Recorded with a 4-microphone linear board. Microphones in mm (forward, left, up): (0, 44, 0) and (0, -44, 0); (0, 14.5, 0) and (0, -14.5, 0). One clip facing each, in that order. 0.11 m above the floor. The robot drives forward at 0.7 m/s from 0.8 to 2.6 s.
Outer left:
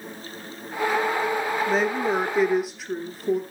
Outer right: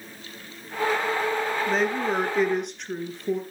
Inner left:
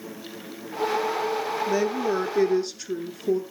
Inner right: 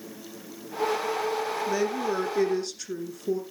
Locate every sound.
1.7 s a woman speaking: 5° left (ahead or behind), 1.9 m